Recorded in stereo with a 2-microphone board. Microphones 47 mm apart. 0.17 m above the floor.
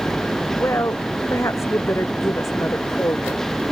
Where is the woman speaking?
80° left.